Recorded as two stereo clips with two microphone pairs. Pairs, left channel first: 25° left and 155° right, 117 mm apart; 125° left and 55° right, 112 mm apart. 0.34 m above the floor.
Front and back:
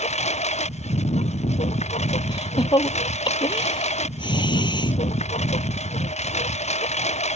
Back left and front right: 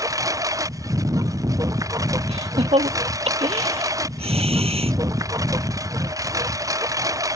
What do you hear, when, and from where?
0.0 s a lawn mower: 5° left
2.3 s laughter: 25° right